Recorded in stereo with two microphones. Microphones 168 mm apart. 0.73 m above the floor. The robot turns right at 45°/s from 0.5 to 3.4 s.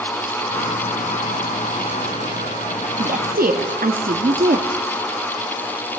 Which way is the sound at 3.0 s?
55° right (ahead or behind).